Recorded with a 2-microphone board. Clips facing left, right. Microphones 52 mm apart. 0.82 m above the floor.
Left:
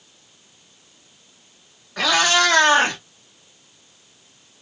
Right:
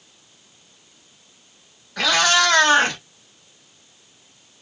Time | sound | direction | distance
2.0 | a cat meowing | 15° left (ahead or behind) | 2.5 m